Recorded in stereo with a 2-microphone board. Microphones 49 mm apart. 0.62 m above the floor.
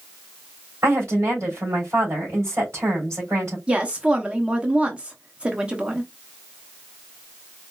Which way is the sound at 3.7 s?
20° right (ahead or behind).